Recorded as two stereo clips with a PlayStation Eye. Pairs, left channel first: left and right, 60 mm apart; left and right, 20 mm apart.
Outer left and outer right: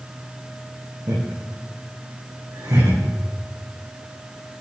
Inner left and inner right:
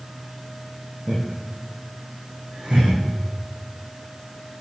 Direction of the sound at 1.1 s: 75° right (ahead or behind).